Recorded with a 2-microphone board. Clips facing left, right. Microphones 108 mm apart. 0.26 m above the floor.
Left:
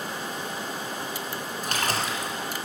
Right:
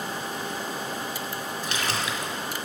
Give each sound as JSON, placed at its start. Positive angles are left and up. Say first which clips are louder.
{"t": 1.6, "sound": "a splash", "louder": "left 2 dB", "side_deg": 50, "distance_m": 1.3}